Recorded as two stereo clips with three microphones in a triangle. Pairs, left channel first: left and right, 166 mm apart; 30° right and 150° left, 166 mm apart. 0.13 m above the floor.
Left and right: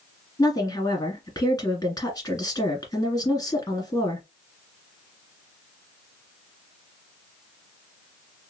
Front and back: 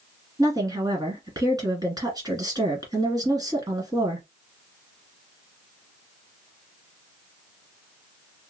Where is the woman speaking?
120° left, 1.7 m.